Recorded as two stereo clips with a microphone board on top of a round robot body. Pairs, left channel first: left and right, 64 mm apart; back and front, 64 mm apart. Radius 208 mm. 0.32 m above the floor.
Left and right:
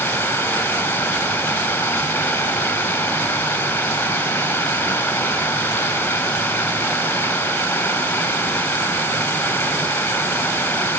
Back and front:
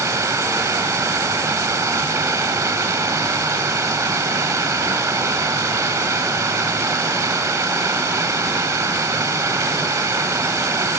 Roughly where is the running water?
Ahead left.